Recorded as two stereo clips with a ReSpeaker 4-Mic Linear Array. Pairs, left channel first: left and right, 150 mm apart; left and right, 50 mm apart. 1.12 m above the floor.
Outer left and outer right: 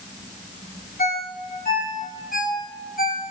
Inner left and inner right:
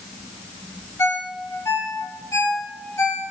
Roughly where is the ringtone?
Left.